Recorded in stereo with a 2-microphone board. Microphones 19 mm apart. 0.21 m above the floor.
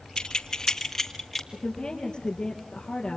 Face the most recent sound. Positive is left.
turn(degrees=45)  # may be behind; listen again after turning